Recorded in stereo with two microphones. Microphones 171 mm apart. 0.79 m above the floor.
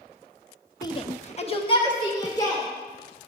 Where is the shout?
20° left (ahead or behind), 0.6 m.